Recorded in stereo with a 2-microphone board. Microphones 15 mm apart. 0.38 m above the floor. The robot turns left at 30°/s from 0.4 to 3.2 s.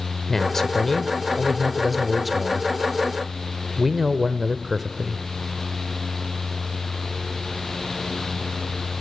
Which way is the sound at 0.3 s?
45° left.